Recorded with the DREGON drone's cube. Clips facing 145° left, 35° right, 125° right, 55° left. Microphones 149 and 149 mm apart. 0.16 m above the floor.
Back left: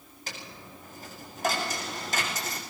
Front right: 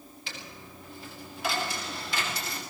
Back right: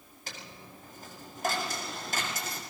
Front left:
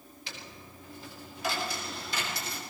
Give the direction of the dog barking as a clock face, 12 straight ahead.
No dog barking in this recording.